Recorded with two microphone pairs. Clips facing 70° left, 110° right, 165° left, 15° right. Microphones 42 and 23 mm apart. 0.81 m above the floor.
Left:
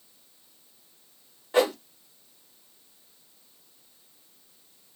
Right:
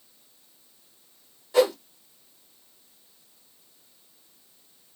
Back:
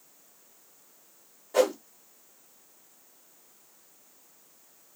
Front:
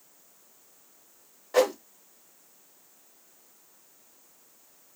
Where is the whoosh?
25° left, 1.7 m.